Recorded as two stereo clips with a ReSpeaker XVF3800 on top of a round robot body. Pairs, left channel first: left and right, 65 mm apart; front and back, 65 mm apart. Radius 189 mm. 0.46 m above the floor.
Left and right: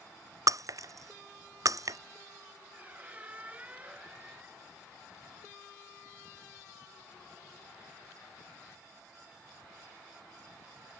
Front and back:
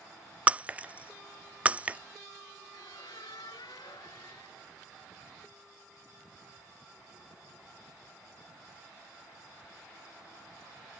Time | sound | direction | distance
0.5 | breaking glass | 110° right | ?
2.7 | a squeak | 20° right | ?